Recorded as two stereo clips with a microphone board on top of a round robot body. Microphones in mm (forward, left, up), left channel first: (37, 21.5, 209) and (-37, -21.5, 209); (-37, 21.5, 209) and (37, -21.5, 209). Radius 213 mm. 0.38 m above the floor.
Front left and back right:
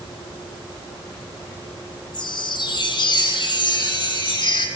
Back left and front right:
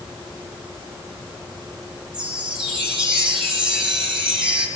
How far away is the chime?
About 5.5 m.